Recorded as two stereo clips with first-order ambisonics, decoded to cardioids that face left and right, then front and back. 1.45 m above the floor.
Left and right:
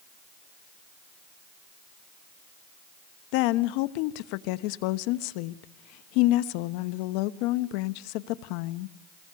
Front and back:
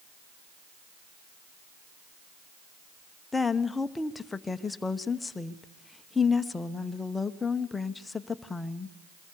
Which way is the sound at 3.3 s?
80° left.